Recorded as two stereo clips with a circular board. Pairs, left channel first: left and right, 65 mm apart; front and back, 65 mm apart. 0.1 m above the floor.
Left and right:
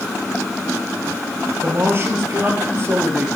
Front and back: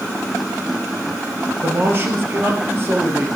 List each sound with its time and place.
1.6 s a man speaking: 135° right, 2 m